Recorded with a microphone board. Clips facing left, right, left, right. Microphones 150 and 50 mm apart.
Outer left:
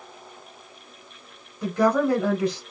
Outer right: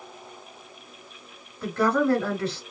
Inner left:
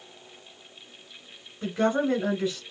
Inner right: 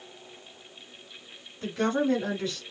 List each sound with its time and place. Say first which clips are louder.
1.6 s a woman speaking: outer left 2 dB, inner left 2 dB; 15° left (ahead or behind), 1.1 m